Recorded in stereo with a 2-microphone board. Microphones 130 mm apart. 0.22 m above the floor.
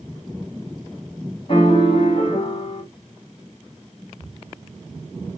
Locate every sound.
1.5 s a piano: 45° left (ahead or behind), 1.2 m